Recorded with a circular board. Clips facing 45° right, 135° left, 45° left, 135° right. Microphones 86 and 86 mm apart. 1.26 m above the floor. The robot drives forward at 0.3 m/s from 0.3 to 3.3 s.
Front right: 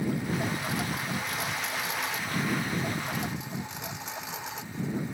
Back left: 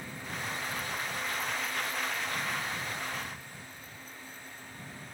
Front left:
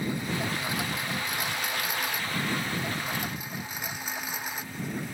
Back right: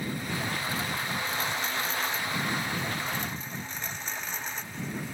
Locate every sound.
0.0 s a lawn mower: 25° right; by 5.2 s 35° right